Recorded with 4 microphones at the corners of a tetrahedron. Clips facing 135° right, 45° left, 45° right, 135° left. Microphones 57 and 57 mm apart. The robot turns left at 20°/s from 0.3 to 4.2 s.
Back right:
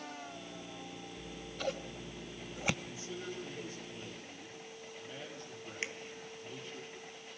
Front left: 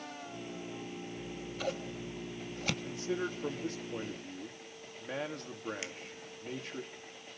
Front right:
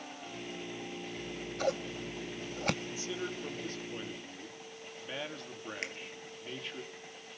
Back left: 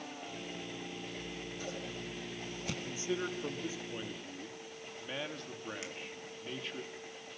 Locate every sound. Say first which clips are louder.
1.2 s scissors: front left 1 dB, front right 5 dB; 30° right, 1.5 m; by 2.7 s 65° right, 1.5 m
2.8 s a man speaking: front left 7 dB, back left 2 dB; 75° left, 3 m; by 6.8 s 45° left, 3 m
5.8 s a finger snap: back right 3 dB, front right 4 dB; 75° right, 1.5 m